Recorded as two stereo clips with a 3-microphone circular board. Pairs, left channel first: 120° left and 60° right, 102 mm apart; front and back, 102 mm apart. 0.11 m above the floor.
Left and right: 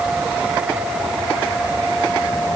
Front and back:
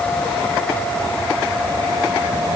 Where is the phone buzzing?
I don't hear a phone buzzing.